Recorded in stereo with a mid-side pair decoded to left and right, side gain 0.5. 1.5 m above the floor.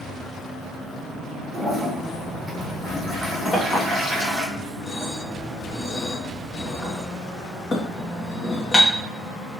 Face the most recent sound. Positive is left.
turn(degrees=35)